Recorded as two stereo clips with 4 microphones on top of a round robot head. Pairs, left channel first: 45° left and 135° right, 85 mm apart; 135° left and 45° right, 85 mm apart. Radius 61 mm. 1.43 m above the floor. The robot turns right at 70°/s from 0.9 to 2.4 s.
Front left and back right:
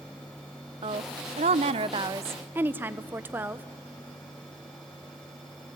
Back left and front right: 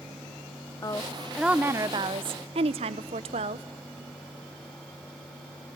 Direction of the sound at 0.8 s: 170° right.